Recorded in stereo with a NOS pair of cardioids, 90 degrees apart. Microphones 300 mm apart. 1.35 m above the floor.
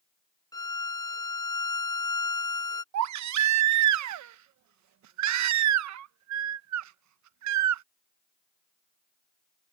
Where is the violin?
10° left.